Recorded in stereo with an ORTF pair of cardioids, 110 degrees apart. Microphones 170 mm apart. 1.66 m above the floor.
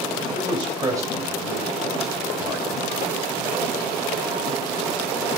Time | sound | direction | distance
0.3 | a man speaking | 35° right | 3.5 m